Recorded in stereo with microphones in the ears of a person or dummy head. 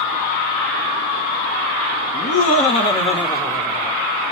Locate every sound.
2.1 s laughter: 55° left (ahead or behind), 0.9 m; by 4.0 s 5° left (ahead or behind), 1.2 m